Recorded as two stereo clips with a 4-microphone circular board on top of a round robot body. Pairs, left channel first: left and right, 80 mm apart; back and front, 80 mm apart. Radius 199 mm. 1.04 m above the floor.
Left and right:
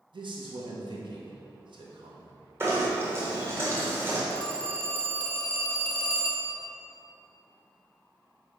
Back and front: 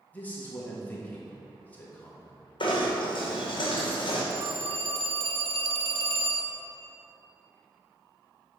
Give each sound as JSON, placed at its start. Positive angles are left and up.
{"t": 0.1, "sound": "a man speaking", "azimuth_deg": -110, "distance_m": 1.8}
{"t": 2.6, "sound": "knocking", "azimuth_deg": -155, "distance_m": 1.8}
{"t": 4.3, "sound": "a phone ringing", "azimuth_deg": 15, "distance_m": 0.8}